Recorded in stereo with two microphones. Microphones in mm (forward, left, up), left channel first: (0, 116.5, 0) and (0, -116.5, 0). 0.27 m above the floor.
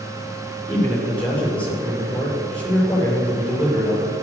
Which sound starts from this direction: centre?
A man speaking, at 0.7 s.